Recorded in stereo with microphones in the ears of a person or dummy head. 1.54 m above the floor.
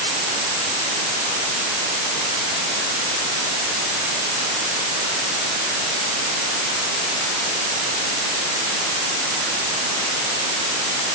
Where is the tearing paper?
I don't hear tearing paper.